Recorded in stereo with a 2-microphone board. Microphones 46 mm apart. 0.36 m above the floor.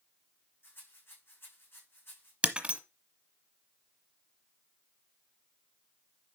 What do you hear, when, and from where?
0.6 s a rattle: 50° left (ahead or behind), 4.5 m
2.4 s breaking glass: 30° right (ahead or behind), 1.2 m